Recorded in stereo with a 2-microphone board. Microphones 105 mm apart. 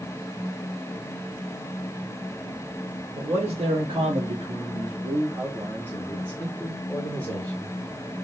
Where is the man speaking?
75° right (ahead or behind), 1.4 m; by 7.8 s 20° left (ahead or behind), 1.9 m.